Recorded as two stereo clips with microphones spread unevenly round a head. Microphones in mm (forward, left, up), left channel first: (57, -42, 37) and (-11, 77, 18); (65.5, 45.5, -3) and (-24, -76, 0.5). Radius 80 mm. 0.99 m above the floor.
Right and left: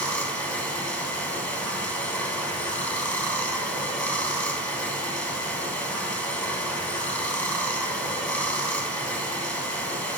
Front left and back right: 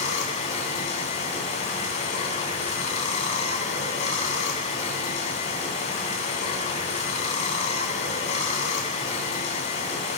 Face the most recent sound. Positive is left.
turn(degrees=15)